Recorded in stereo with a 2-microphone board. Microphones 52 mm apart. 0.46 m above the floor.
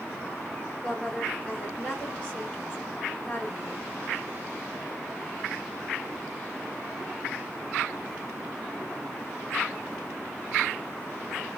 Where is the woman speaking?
20° left (ahead or behind), 2.5 m.